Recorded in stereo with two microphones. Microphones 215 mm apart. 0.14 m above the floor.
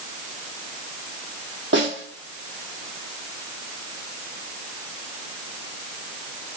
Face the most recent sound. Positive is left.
turn(degrees=-65)  # may be behind; listen again after turning